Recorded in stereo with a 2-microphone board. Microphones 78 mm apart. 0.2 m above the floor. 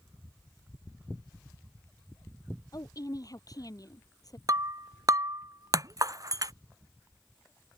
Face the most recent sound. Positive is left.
turn(degrees=-50)  # may be behind; listen again after turning